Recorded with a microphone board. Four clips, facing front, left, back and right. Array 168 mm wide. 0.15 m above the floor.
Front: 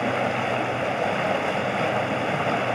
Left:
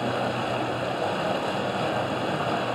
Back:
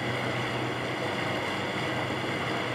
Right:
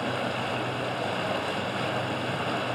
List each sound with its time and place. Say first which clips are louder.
0.0 s running water: left 3 dB, front 7 dB; 10° left, 1.6 m